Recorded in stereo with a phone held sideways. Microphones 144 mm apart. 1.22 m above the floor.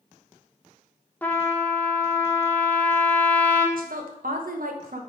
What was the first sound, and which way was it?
A trumpet, 10° left (ahead or behind).